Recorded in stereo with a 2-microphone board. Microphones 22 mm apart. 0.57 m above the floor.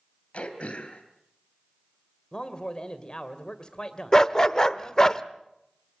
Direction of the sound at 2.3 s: 35° left (ahead or behind).